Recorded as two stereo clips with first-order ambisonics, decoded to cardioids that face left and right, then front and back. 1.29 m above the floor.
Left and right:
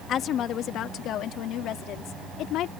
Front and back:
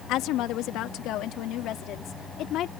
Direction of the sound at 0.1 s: 35° left.